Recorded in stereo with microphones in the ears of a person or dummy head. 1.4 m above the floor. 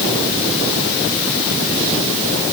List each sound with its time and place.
Only background noise.